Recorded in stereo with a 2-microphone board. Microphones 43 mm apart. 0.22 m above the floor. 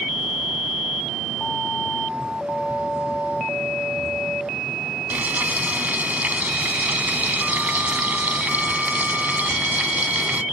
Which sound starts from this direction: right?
Frying, at 5.1 s.